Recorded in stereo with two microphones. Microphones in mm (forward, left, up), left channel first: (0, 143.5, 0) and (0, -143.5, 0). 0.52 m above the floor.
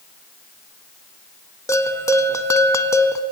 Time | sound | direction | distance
1.7 | a bell | 10° left (ahead or behind) | 0.8 m